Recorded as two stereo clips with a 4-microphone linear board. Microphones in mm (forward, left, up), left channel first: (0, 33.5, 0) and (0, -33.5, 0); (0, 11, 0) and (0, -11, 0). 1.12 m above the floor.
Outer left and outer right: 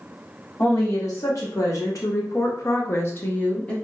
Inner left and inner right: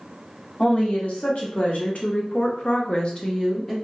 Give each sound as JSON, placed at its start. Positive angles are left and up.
{"t": 0.6, "sound": "a woman speaking", "side_deg": 55, "distance_m": 1.8}